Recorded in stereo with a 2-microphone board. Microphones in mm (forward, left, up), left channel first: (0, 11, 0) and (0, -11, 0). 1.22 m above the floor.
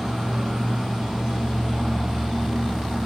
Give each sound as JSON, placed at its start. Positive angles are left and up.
{"t": 0.0, "sound": "an insect", "side_deg": -70, "distance_m": 1.4}